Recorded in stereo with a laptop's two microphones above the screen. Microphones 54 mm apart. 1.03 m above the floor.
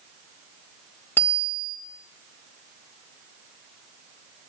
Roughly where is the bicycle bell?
Left.